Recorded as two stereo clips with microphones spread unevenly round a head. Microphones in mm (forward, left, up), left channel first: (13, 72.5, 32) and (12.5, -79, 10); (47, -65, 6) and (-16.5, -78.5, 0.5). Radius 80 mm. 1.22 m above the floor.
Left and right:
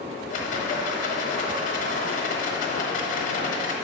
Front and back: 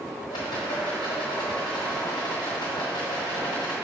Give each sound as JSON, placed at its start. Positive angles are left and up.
{"t": 0.3, "sound": "a rattle", "azimuth_deg": 55, "distance_m": 1.0}